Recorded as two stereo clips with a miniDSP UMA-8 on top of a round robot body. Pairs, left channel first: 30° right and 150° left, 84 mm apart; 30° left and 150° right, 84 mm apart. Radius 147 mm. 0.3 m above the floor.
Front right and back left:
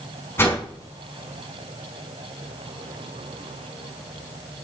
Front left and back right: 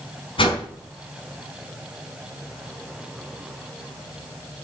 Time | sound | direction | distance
0.4 | a whoosh | 30° left | 4 m